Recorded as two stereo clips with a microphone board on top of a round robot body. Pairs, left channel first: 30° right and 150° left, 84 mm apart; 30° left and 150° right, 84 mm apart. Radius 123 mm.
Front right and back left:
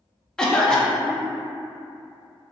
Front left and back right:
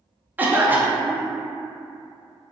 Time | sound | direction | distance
0.4 | a cough | 105° right | 0.5 m